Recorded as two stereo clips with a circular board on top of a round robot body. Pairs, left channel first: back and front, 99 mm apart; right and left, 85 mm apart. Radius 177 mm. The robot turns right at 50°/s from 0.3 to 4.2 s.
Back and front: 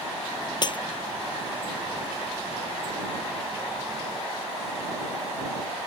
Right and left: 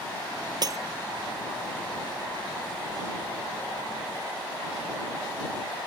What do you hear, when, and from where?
0.6 s breaking glass: 135° left; by 0.8 s 145° left